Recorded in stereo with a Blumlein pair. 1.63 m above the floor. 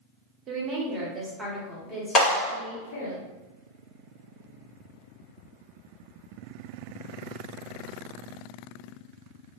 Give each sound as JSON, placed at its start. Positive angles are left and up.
{"t": 0.5, "sound": "a woman speaking", "azimuth_deg": -30, "distance_m": 0.9}
{"t": 2.1, "sound": "a clap", "azimuth_deg": 30, "distance_m": 1.5}